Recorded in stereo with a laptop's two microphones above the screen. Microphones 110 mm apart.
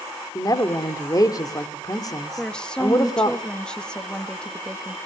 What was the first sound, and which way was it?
A woman speaking, 35° left (ahead or behind).